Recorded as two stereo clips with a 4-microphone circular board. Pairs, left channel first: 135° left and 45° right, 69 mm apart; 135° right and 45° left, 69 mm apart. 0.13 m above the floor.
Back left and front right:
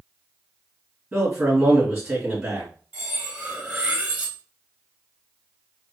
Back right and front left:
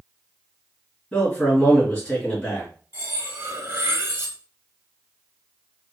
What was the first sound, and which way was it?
A man speaking, 95° right.